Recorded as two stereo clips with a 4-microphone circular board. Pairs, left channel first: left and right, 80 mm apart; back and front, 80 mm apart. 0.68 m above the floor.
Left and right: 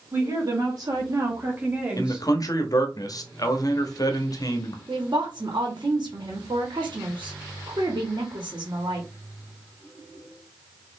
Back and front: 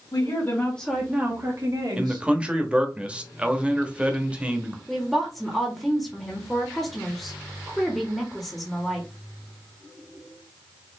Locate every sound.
0.1 s a woman speaking: 135° right, 1.8 m; by 2.3 s 10° right, 2 m
2.0 s a man speaking: 70° left, 0.9 m
4.9 s a woman speaking: 90° right, 1.3 m